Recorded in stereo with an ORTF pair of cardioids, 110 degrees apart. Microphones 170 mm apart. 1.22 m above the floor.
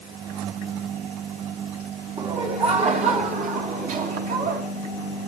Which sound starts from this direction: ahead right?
Laughter, at 2.2 s.